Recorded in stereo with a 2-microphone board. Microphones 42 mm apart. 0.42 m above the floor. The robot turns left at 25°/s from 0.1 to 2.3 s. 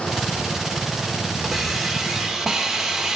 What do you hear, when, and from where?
1.4 s a hiss: centre (ahead or behind), 1.1 m; by 3.2 s 10° right (ahead or behind), 1.1 m